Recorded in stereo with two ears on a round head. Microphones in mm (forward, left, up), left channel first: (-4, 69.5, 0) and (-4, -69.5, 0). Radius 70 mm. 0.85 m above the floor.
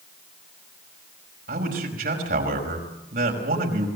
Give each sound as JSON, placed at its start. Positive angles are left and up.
{"t": 1.5, "sound": "a man speaking", "side_deg": -65, "distance_m": 5.5}